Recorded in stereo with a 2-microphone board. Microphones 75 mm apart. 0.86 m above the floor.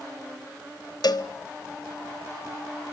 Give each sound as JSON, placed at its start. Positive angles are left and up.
{"t": 1.0, "sound": "a cowbell", "side_deg": 65, "distance_m": 1.0}